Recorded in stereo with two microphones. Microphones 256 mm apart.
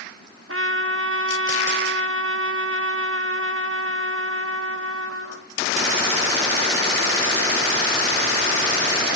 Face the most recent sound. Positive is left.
turn(degrees=-55)  # may be behind; listen again after turning